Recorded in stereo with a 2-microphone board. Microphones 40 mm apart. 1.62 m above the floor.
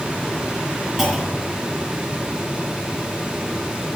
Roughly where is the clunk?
Centre.